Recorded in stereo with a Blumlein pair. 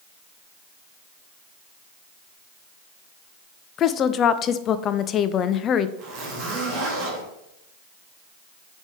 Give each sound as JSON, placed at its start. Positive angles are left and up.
{"t": 3.8, "sound": "a woman speaking", "azimuth_deg": 30, "distance_m": 0.5}
{"t": 6.0, "sound": "a zipper", "azimuth_deg": -35, "distance_m": 3.0}